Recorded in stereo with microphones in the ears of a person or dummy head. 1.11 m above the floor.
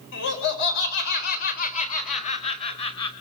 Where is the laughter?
70° left (ahead or behind), 4.5 m; by 3.1 s 25° left (ahead or behind), 5 m.